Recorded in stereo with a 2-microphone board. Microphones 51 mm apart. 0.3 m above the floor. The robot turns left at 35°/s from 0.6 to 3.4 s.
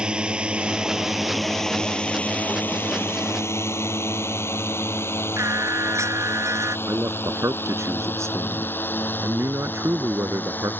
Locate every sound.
0.0 s a drone: 15° right (ahead or behind); by 10.8 s 40° left (ahead or behind)
5.4 s singing: 75° right (ahead or behind)
6.9 s a man speaking: 70° right (ahead or behind)